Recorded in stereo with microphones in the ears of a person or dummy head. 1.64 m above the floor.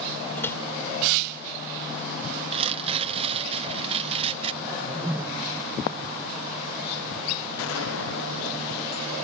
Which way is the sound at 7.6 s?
70° left (ahead or behind).